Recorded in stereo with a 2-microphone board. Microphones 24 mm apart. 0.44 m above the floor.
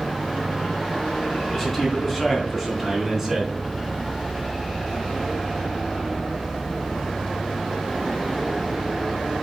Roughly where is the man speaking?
Centre.